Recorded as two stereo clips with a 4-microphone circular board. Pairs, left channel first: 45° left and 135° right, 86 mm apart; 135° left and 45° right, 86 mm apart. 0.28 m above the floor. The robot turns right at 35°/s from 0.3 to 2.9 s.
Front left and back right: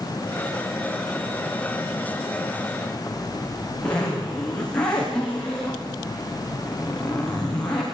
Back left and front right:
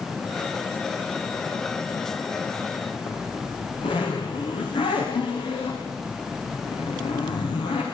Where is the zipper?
125° left, 8 m.